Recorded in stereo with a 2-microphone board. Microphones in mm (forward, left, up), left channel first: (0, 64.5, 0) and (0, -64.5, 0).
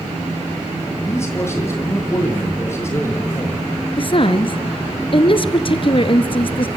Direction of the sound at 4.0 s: 45° left (ahead or behind).